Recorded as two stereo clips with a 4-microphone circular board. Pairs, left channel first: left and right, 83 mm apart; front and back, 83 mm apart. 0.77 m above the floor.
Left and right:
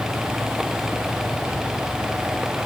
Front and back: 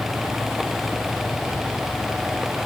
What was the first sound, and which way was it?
Only background noise.